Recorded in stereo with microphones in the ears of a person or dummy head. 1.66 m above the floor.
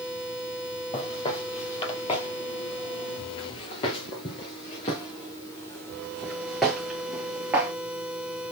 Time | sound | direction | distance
0.9 | footsteps | 35° left (ahead or behind) | 3 m